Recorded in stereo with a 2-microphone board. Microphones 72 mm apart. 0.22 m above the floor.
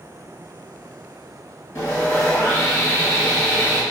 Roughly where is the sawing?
Left.